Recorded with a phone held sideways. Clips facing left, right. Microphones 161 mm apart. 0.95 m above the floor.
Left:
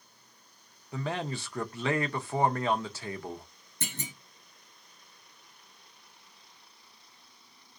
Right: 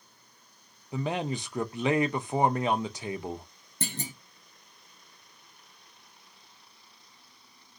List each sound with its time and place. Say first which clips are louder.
0.9 s a man speaking: right 3 dB; 15° right (ahead or behind), 0.6 m
3.8 s a clunk: right 4 dB; 30° right (ahead or behind), 0.7 m